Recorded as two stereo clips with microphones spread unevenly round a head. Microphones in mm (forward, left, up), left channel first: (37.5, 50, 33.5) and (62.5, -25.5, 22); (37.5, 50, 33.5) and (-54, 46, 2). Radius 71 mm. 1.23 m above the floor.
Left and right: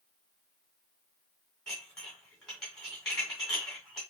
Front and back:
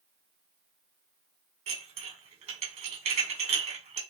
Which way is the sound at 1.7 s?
165° right.